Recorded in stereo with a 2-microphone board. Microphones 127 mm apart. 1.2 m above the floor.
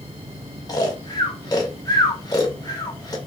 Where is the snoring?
30° left (ahead or behind), 1.0 m.